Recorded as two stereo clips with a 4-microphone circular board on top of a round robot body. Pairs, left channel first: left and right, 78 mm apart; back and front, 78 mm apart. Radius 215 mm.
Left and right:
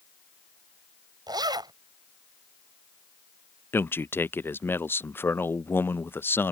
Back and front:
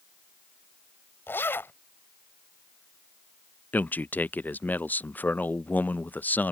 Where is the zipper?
120° right.